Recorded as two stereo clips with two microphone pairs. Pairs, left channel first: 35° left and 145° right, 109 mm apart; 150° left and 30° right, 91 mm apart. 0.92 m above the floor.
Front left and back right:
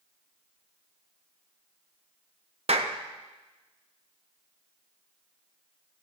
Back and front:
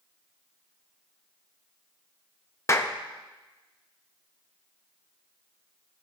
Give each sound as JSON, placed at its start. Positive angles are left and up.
{"t": 2.7, "sound": "a clap", "azimuth_deg": -155, "distance_m": 0.7}